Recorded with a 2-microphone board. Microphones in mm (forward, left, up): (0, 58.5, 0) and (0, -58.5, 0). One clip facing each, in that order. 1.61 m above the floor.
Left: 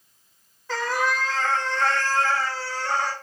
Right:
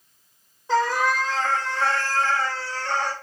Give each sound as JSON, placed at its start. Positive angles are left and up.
{"t": 0.7, "sound": "a cat meowing", "side_deg": -20, "distance_m": 0.9}